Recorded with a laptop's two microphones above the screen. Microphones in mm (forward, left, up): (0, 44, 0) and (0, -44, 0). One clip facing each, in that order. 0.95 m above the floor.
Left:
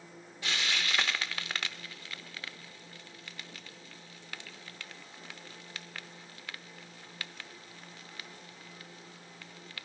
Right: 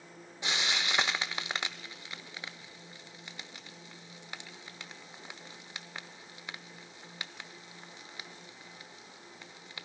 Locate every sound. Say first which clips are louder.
0.4 s frying: right 1 dB; 20° right (ahead or behind), 0.6 m